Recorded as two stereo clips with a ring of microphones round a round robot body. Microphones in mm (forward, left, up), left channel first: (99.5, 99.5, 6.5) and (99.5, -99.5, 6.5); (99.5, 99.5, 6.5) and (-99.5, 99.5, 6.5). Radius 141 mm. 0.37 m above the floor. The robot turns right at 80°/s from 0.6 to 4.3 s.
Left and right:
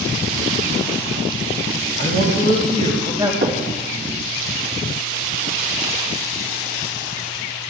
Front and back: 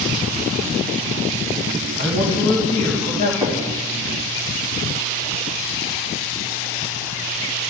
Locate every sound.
2.0 s a man speaking: 125° right, 3 m; by 3.3 s 20° right, 3 m
3.4 s knocking: 90° right, 2.5 m; by 3.6 s 75° right, 2.5 m